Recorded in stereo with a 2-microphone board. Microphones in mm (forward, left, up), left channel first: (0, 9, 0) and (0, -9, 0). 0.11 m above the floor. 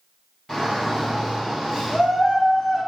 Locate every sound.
0.5 s a shout: 15° left (ahead or behind), 1.9 m; by 2.8 s 20° right (ahead or behind), 2.5 m